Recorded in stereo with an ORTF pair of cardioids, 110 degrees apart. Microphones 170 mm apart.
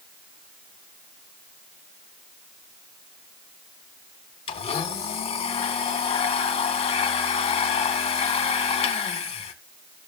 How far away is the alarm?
I don't hear an alarm.